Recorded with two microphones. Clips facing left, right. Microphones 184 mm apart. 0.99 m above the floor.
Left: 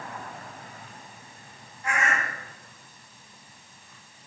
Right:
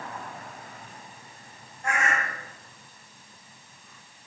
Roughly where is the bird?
Right.